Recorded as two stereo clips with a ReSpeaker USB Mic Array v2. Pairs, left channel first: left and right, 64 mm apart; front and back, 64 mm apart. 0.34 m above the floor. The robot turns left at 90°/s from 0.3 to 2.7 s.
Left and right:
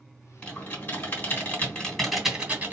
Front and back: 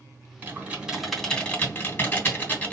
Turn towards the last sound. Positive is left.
turn(degrees=-50)